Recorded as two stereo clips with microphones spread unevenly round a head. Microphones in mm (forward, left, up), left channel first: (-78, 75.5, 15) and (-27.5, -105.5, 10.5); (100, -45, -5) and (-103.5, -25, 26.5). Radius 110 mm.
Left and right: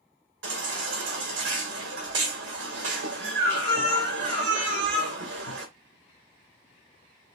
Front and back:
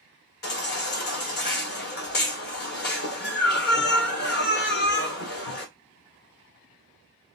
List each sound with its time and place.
0.4 s a baby crying: 45° right, 1.7 m